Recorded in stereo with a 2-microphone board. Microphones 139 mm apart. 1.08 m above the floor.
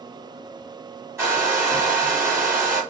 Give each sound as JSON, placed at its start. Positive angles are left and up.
{"t": 1.2, "sound": "a hair dryer", "side_deg": -20, "distance_m": 1.7}